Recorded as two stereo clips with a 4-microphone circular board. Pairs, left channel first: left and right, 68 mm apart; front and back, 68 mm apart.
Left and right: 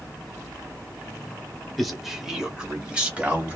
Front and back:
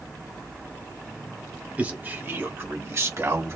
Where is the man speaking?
175° left, 1.5 m; by 3.6 s 150° right, 2.5 m.